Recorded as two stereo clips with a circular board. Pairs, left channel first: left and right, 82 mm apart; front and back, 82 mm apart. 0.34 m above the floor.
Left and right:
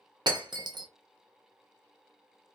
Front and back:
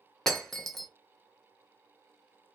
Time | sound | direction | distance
0.3 | breaking glass | 85° right | 0.7 m